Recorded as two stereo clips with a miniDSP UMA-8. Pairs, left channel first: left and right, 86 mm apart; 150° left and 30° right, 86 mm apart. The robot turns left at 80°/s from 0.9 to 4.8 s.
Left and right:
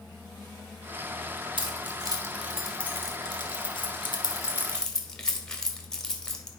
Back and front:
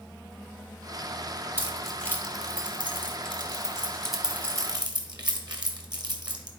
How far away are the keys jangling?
About 1.3 m.